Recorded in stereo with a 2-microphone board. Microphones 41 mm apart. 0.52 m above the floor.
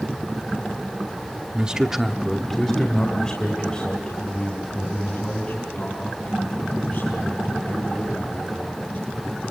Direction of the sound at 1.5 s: 25° right (ahead or behind).